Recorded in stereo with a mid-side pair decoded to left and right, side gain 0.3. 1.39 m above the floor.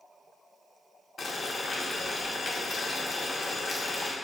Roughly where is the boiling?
Ahead left.